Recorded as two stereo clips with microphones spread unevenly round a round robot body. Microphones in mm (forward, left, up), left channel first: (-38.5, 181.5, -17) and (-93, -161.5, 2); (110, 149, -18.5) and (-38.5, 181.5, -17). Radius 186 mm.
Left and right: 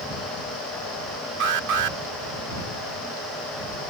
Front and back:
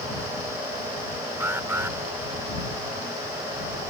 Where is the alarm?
120° right.